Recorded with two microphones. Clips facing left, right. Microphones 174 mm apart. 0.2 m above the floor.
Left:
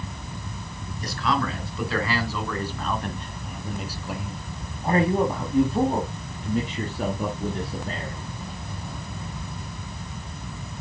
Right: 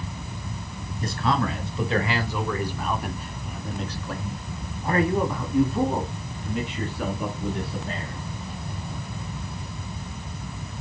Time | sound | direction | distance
1.0 | a man speaking | 30° right (ahead or behind) | 2 m